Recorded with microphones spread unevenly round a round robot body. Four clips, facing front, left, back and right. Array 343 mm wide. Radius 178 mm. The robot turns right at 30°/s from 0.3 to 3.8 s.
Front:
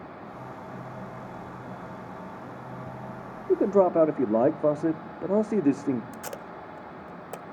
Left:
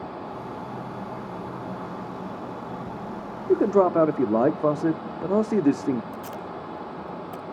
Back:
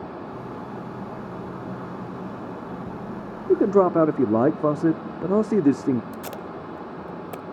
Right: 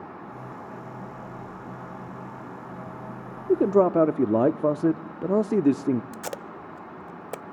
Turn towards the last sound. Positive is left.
turn(degrees=-75)